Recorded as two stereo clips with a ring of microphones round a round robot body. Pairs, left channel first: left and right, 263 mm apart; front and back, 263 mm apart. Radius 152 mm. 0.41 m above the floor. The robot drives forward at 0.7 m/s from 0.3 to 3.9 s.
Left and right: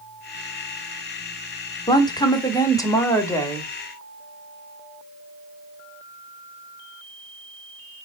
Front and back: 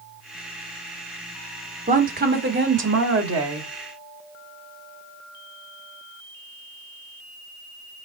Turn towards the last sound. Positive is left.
turn(degrees=170)